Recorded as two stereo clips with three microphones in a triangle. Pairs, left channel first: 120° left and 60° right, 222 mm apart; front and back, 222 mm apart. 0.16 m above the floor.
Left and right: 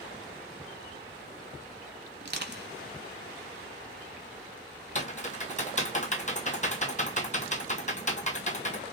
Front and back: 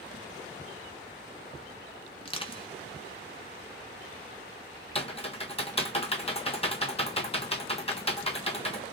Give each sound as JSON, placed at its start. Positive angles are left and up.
{"t": 2.2, "sound": "crushing", "azimuth_deg": -55, "distance_m": 1.2}
{"t": 5.0, "sound": "typing on a keyboard", "azimuth_deg": 65, "distance_m": 1.1}